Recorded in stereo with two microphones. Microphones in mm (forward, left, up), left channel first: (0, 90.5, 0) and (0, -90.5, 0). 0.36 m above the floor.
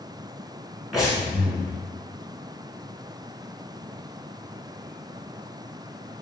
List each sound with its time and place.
0.9 s breathing: centre (ahead or behind), 1.1 m